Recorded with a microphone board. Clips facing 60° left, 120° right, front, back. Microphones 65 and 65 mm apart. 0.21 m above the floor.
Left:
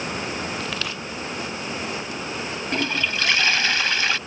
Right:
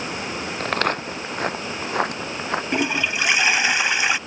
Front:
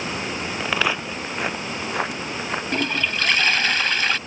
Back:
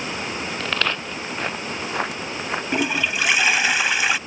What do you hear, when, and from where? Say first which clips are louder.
0.6 s footsteps: right 7 dB, front 2 dB; 75° right; by 2.6 s 95° right
2.7 s a toilet flushing: even, back 2 dB; 130° right